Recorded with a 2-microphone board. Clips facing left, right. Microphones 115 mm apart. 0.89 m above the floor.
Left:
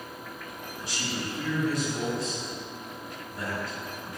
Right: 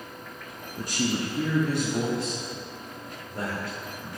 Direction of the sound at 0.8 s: 45° right (ahead or behind).